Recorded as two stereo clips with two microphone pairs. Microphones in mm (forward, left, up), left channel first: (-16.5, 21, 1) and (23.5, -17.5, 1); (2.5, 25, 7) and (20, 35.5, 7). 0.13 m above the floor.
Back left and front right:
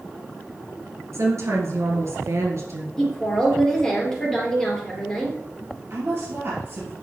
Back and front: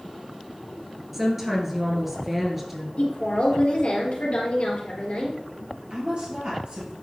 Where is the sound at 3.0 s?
150° right, 3 m.